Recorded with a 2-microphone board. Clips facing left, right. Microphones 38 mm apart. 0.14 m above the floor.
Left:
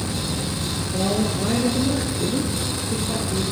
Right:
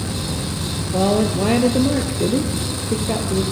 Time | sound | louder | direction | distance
0.9 | a woman speaking | right 6 dB | 70° right (ahead or behind) | 3 m